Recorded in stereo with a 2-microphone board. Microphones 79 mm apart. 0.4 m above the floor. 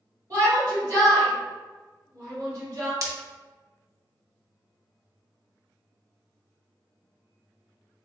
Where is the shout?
45° right (ahead or behind), 1.6 m.